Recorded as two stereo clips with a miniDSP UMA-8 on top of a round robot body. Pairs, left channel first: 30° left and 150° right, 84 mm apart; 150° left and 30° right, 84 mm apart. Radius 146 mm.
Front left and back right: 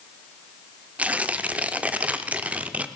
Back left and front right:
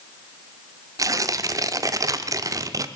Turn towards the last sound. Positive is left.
turn(degrees=-75)